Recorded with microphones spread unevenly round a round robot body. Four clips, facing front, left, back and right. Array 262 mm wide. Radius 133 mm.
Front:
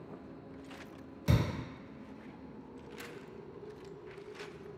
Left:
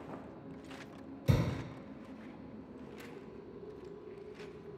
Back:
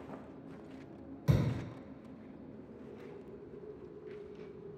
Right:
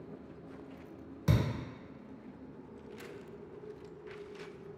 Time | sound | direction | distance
1.3 | a thud | 80° right | 1.3 m